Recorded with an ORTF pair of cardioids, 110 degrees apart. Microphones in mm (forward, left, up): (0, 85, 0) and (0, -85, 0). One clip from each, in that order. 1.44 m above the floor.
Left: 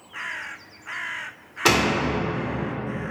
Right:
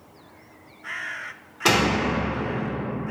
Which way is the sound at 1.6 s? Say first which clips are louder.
Even; 10° left.